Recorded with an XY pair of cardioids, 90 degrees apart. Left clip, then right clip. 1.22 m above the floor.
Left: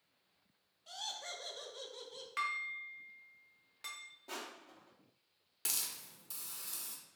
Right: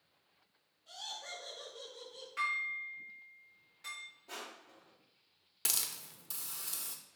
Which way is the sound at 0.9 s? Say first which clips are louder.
Left 1 dB; 65° left.